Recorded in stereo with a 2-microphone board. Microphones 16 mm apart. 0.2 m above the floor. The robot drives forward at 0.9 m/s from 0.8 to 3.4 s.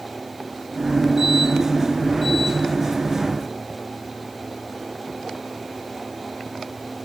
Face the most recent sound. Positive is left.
No sound to turn to.